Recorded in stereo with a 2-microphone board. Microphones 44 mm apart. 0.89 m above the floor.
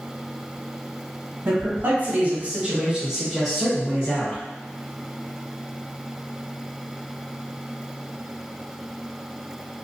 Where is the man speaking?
55° right (ahead or behind), 1.2 m; by 4.4 s 25° left (ahead or behind), 1.0 m.